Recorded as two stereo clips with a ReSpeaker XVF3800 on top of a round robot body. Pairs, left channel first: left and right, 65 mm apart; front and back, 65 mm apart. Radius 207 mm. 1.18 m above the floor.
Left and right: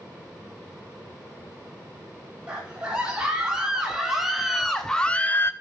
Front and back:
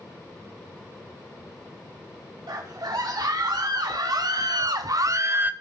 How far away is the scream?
About 3 m.